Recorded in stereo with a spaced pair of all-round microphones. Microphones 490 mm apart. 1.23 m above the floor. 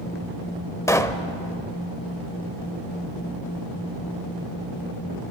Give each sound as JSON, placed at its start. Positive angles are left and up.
{"t": 0.9, "sound": "a pop", "side_deg": 5, "distance_m": 1.0}